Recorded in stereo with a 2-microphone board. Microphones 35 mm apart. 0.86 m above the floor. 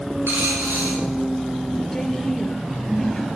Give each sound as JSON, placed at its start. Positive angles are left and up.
{"t": 0.3, "sound": "a dropped coin", "side_deg": -75, "distance_m": 5.5}
{"t": 1.9, "sound": "a woman speaking", "side_deg": 15, "distance_m": 2.5}